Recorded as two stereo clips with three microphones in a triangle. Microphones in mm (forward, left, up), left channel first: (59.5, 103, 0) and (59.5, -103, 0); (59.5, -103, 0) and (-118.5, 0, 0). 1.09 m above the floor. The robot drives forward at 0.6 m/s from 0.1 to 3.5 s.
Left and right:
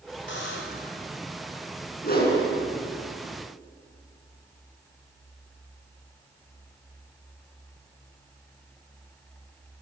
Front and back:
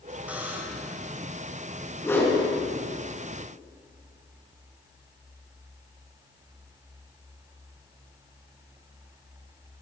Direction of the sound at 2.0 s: 50° left.